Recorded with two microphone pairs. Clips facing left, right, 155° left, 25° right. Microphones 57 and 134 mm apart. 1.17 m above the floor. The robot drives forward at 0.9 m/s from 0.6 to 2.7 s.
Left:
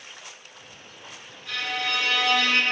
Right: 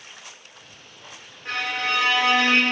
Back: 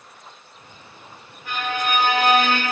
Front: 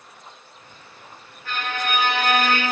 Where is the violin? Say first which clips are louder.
Right 3 dB, back 2 dB; 130° right, 3.5 m; by 2.6 s 140° right, 4 m.